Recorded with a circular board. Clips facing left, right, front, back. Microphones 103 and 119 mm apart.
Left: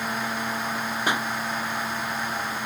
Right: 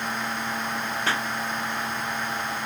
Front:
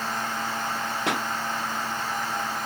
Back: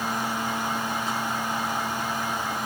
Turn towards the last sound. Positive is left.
turn(degrees=15)